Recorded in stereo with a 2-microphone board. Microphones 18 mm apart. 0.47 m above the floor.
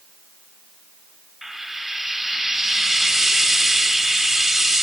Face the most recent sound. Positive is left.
turn(degrees=-25)  # may be behind; listen again after turning